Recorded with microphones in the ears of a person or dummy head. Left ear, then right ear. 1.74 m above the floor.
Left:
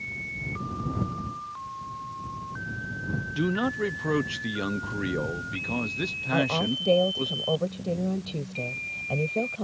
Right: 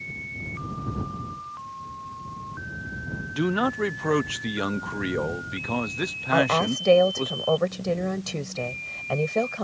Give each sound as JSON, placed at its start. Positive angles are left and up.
{"t": 3.3, "sound": "a man speaking", "side_deg": -25}
{"t": 6.3, "sound": "a woman speaking", "side_deg": -55}